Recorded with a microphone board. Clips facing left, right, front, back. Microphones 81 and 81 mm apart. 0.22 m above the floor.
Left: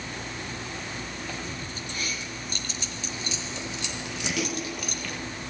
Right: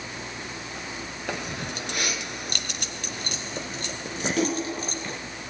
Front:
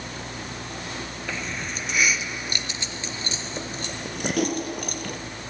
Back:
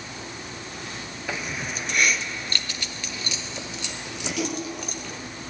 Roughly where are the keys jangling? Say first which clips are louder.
Right 4 dB, back 2 dB; right.